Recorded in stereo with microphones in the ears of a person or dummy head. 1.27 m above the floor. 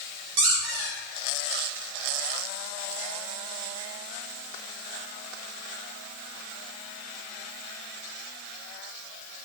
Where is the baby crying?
I don't hear a baby crying.